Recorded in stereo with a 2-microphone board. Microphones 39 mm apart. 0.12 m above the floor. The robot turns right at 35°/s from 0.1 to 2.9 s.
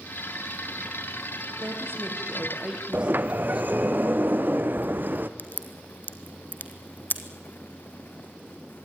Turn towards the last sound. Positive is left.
turn(degrees=50)  # may be behind; listen again after turning